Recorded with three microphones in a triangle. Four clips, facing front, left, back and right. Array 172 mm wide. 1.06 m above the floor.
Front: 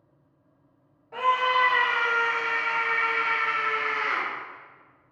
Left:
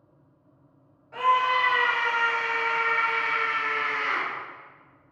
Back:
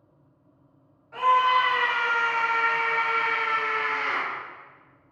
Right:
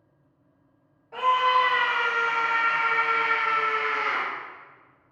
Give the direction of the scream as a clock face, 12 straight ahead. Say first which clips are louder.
Right 1 dB, back 3 dB; 1 o'clock.